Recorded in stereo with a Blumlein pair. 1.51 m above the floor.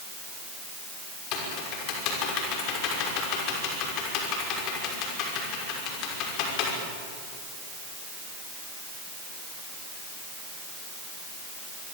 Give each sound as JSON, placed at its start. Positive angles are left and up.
{"t": 1.3, "sound": "typing on a keyboard", "azimuth_deg": 40, "distance_m": 6.0}